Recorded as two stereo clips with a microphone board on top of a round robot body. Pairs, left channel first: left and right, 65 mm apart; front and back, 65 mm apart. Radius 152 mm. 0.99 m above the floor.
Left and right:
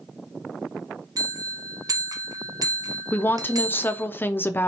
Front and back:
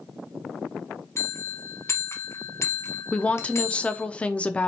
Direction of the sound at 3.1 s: 55° left.